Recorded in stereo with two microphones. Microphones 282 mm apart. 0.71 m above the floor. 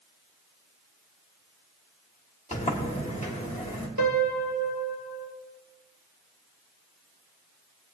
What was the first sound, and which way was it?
A sliding door, 25° left (ahead or behind).